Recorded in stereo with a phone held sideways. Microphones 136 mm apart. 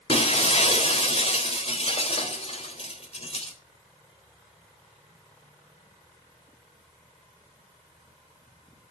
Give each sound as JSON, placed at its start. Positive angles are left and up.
{"t": 0.1, "sound": "breaking glass", "side_deg": 45, "distance_m": 3.0}